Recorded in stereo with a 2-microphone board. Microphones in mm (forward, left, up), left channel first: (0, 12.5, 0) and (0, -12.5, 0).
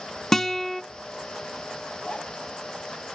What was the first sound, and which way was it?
A guitar, 15° left (ahead or behind).